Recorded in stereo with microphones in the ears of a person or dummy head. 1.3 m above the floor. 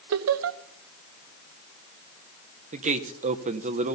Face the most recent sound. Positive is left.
turn(degrees=-40)  # may be behind; listen again after turning